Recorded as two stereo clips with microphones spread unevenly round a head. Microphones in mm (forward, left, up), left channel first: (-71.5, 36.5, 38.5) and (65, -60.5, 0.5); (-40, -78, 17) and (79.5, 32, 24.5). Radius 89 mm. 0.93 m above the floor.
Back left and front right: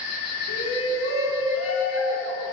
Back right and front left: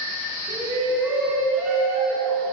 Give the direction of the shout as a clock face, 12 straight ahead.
8 o'clock.